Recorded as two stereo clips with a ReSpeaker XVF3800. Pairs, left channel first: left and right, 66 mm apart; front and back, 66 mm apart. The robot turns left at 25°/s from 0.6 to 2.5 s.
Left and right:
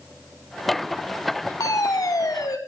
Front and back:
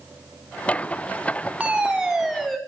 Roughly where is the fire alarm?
Left.